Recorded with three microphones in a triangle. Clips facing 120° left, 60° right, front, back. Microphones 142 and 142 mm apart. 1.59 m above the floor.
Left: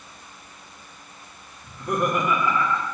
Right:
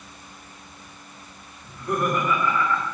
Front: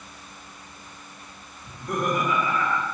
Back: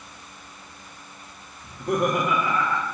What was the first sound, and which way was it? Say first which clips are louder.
Laughter: even, back 4 dB; 165° right.